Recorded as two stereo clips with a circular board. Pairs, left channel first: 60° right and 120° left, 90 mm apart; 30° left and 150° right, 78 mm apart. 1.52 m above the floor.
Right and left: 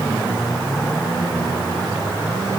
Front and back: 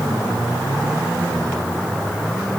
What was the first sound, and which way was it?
Only background noise.